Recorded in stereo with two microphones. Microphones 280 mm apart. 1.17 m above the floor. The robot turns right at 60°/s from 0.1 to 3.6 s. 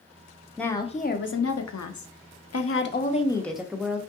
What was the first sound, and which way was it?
A woman speaking, straight ahead.